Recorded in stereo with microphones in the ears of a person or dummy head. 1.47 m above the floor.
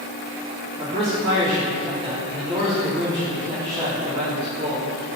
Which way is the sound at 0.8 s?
25° right (ahead or behind).